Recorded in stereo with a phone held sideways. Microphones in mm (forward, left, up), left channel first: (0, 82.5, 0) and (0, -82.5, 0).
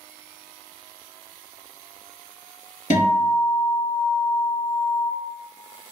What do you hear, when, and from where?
2.9 s a guitar: 50° left (ahead or behind), 1.4 m